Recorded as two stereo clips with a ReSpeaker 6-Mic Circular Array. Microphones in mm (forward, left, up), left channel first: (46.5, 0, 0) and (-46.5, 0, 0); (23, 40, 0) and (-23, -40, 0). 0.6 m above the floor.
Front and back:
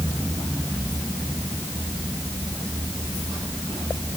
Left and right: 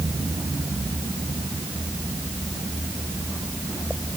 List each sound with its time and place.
Only background noise.